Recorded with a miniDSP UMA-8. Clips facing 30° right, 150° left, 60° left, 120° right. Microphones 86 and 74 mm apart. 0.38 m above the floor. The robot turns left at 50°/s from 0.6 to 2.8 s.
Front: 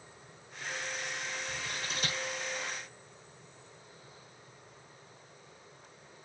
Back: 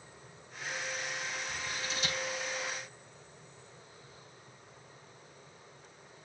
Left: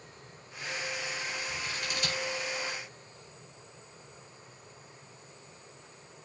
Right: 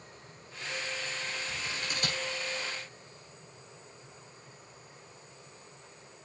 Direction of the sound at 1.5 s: 50° right.